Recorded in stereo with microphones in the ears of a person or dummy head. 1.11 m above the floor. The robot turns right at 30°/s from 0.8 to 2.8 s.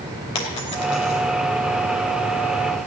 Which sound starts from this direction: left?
A dropped coin, at 0.3 s.